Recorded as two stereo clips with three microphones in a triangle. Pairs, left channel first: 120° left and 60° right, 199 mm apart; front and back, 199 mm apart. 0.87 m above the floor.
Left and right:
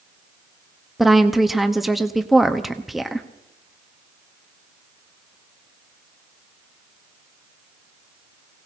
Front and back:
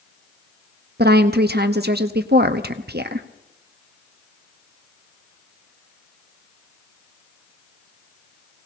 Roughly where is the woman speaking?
Behind right.